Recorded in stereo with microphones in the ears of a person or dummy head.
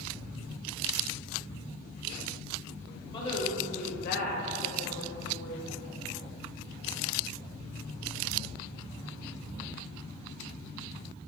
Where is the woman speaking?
30° left (ahead or behind), 1.5 m; by 5.6 s 85° left, 1.8 m.